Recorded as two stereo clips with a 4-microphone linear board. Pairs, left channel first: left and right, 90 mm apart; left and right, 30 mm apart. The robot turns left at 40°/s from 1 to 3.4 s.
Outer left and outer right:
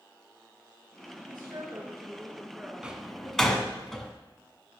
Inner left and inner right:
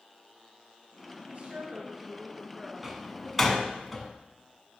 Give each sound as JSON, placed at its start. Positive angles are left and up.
{"t": 1.3, "sound": "a woman speaking", "azimuth_deg": -115, "distance_m": 2.5}
{"t": 2.8, "sound": "a door slam", "side_deg": -10, "distance_m": 1.5}